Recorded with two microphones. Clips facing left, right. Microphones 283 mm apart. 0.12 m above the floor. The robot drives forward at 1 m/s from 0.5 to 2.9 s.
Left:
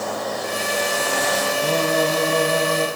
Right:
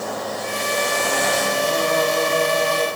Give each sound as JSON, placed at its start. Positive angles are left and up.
{"t": 1.6, "sound": "singing", "side_deg": 70, "distance_m": 5.0}